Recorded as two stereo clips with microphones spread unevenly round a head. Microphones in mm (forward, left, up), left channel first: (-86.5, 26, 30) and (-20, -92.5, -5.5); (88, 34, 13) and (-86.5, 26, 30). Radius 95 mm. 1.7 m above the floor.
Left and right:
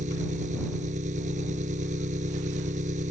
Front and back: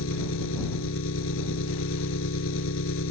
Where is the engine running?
5° right.